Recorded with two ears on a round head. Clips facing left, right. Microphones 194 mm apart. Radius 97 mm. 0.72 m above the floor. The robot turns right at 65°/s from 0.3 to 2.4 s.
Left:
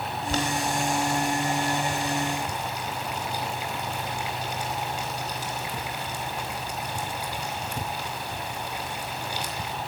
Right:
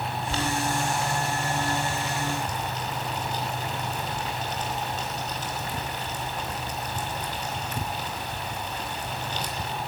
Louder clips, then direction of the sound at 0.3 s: Left 1 dB; 35° left (ahead or behind).